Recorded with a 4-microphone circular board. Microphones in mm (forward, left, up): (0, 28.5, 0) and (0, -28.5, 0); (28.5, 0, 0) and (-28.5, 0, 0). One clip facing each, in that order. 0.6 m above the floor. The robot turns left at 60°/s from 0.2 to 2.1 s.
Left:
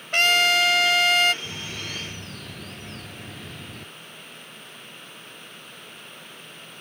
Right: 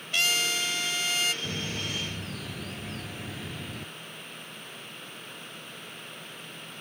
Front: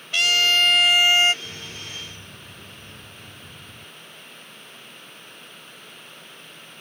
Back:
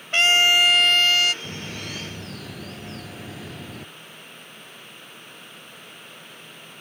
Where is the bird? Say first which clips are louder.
Right 1 dB, back 4 dB; 135° right; by 3.9 s 175° right.